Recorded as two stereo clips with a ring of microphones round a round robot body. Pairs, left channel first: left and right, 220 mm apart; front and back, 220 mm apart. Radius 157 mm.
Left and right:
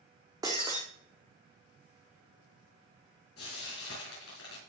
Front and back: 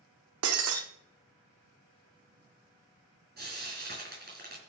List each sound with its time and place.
0.4 s breaking glass: 170° right, 1.3 m
3.4 s frying: 135° left, 6 m